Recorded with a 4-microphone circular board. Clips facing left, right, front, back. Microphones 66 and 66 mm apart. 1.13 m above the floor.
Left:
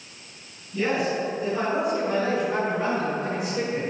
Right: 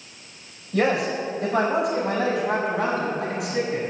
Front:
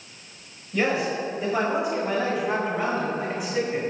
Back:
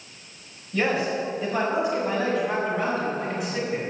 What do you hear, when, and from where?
0.7 s a man speaking: 80° right, 5 m